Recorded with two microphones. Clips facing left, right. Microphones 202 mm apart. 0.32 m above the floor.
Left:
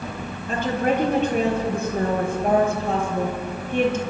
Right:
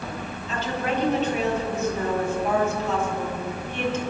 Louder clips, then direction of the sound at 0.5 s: Left 6 dB; 55° left (ahead or behind).